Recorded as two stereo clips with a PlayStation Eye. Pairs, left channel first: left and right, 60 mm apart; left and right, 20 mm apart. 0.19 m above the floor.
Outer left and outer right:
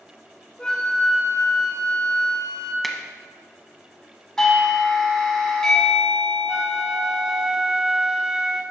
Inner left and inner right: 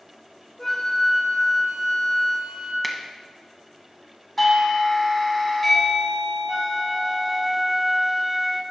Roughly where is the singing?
I don't hear singing.